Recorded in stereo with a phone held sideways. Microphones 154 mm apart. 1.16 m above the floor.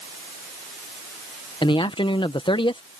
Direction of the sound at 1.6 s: 35° left (ahead or behind).